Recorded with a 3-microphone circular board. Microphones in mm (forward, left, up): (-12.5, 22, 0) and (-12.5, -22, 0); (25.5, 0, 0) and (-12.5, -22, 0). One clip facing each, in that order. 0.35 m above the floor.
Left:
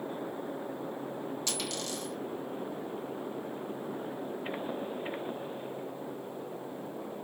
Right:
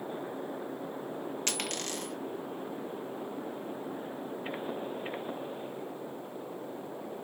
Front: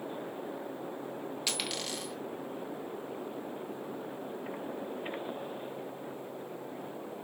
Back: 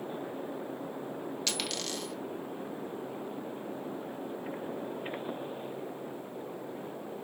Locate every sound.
1.5 s a dropped coin: 50° right, 1.1 m